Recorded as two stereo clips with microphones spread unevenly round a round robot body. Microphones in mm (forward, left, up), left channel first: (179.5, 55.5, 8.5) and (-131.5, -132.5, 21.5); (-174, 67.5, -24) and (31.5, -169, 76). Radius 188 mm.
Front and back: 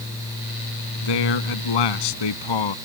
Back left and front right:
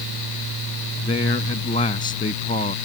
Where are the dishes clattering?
I don't hear dishes clattering.